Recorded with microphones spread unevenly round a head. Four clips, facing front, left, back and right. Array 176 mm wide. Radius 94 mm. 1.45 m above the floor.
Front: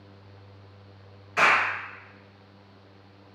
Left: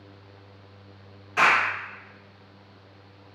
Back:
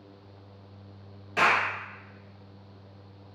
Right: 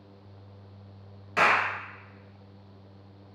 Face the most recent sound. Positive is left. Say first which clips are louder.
# left 2 dB, front 2 dB
turn(degrees=-135)